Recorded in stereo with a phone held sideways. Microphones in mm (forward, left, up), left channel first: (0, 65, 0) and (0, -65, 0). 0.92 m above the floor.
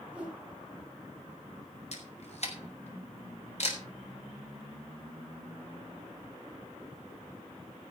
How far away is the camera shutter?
About 4 m.